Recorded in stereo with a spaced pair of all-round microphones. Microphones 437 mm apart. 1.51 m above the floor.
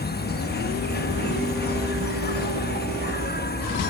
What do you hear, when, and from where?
0.0 s an insect: 20° left (ahead or behind)